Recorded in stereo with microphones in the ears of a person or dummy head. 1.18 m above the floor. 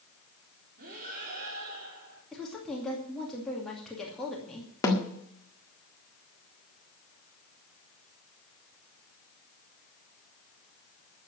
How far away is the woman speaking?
About 2.5 m.